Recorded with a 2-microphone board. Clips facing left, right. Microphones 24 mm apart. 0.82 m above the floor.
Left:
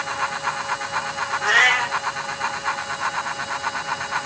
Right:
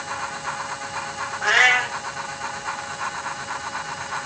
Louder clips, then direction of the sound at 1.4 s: Even; 15° right (ahead or behind).